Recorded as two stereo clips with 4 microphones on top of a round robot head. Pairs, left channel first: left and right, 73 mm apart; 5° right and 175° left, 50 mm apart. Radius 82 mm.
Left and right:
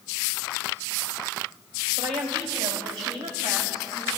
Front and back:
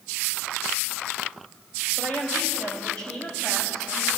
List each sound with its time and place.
2.0 s a woman speaking: 75° right, 3.5 m; by 4.1 s 85° right, 5 m